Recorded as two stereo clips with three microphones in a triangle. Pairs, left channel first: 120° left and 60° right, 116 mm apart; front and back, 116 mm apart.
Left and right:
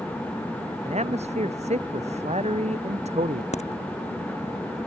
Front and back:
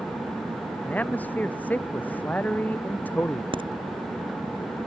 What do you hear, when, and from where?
0.8 s a man speaking: 75° right
3.5 s a crack: 135° left